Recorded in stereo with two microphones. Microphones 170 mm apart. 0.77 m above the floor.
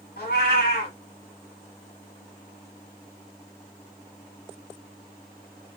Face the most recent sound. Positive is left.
turn(degrees=65)  # may be behind; listen again after turning